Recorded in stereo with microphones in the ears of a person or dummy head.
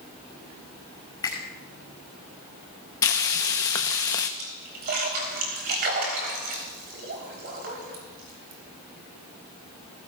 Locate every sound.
1.2 s a finger snap: 20° left (ahead or behind), 5 m
3.0 s frying: 15° left (ahead or behind), 0.6 m
4.4 s a splash: 55° right (ahead or behind), 3 m